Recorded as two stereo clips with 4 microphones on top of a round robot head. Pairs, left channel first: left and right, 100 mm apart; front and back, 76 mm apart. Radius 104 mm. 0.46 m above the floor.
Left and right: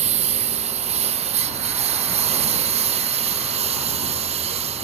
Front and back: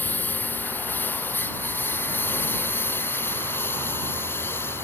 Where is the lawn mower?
70° right; by 4.8 s 65° right.